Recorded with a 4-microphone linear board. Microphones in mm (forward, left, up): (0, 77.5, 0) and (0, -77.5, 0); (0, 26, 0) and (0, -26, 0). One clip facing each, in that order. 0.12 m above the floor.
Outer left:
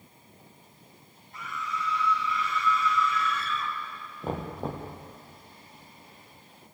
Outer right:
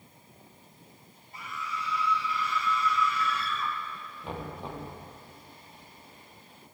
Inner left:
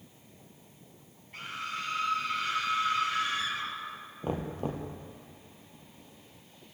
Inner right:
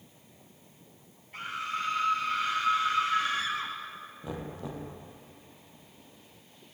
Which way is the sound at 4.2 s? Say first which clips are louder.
Outer left 6 dB, inner left 6 dB; 40° left (ahead or behind).